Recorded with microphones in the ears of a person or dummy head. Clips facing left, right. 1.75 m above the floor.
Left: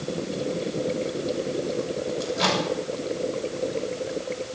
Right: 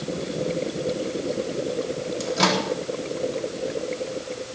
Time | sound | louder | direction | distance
2.2 | a microwave | right 4 dB | 60° right (ahead or behind) | 3.5 m